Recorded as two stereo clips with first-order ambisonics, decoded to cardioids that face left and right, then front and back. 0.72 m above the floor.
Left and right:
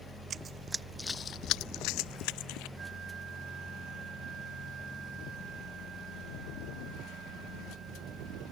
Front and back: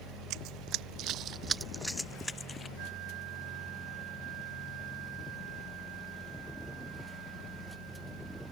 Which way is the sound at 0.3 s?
150° right.